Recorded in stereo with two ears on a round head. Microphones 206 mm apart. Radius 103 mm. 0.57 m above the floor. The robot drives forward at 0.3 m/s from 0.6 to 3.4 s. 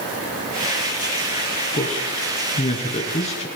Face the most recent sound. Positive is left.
turn(degrees=30)  # may be behind; listen again after turning